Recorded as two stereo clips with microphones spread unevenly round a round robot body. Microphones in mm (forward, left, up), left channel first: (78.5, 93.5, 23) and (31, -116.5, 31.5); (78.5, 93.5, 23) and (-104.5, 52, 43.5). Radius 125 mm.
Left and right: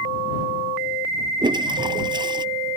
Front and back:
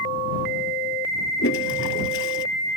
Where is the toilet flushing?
30° right.